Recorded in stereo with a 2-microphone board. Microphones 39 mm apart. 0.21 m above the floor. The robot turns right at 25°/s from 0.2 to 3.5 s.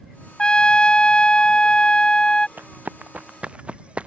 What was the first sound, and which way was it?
A trumpet, 25° left (ahead or behind).